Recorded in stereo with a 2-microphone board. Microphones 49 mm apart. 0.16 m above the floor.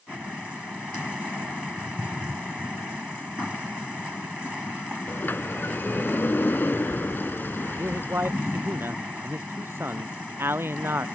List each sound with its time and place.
5.1 s a sliding door: 50° left (ahead or behind)
7.8 s a man speaking: 55° right (ahead or behind)